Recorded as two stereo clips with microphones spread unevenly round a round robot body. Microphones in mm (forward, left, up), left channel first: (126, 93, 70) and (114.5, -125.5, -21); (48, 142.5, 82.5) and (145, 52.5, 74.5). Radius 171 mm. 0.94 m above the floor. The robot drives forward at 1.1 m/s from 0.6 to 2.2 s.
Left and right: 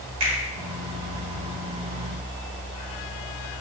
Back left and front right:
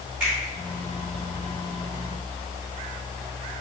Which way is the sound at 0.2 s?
125° right.